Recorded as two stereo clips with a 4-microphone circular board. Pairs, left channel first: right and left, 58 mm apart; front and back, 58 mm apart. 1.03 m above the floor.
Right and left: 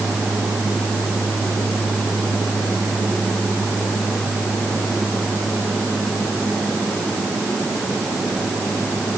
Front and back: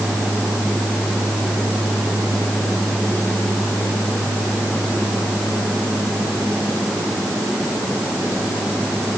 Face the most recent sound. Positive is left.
No sound to turn to.